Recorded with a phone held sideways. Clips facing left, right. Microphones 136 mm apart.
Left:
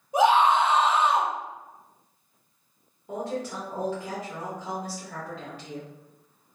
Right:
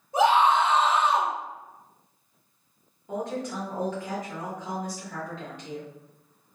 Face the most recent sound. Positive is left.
turn(degrees=5)  # may be behind; listen again after turning